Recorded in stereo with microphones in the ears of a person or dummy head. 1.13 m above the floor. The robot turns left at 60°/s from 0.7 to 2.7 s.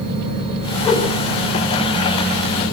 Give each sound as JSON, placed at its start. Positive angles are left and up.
{"t": 0.8, "sound": "a whoosh", "side_deg": 35, "distance_m": 4.0}